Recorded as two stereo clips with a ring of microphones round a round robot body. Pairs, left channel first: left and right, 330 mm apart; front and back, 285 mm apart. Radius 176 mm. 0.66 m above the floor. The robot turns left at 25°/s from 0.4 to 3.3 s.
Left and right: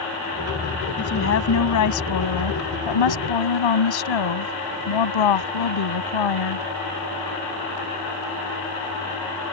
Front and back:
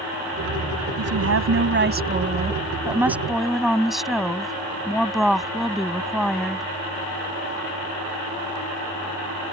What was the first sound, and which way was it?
A woman speaking, 150° left.